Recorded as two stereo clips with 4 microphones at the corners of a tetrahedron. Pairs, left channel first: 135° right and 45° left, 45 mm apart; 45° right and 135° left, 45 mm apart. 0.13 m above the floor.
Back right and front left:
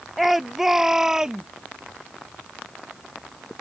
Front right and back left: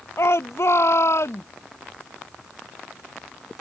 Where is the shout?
45° right; by 1.4 s 30° right.